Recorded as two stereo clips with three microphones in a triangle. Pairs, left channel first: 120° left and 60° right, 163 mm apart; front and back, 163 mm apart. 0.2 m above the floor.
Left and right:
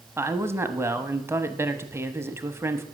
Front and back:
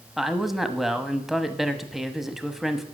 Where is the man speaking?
95° right, 1.0 m.